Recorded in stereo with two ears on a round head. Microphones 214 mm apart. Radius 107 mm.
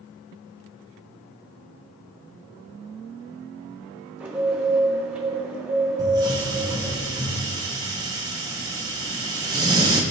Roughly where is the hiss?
Centre.